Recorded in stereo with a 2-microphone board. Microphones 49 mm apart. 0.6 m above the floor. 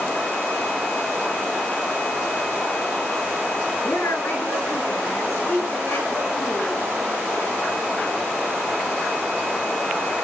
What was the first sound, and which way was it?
A woman speaking, 65° left (ahead or behind).